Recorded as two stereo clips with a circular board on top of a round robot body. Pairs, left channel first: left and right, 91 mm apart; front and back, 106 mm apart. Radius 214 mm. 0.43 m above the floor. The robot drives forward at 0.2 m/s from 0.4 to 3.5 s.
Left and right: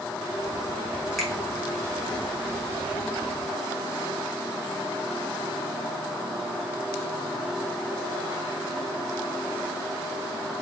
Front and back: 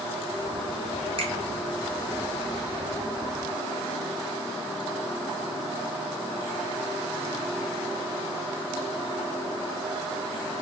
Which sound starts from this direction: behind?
A finger snap, at 1.2 s.